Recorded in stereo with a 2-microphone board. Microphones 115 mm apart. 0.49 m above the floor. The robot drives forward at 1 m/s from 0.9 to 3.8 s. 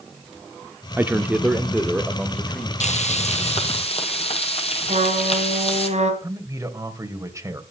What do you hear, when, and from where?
1.0 s a man speaking: 20° right (ahead or behind), 0.8 m; by 2.7 s 5° right (ahead or behind), 2 m
2.8 s frying: 80° left, 2.5 m; by 5.9 s 60° left (ahead or behind), 2.5 m
4.9 s a trumpet: 85° right, 3.5 m
6.2 s a man speaking: 25° right (ahead or behind), 2.5 m